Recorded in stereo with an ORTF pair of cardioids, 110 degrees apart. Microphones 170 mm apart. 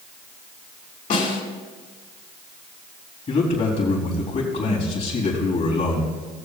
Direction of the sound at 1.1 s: 55° left.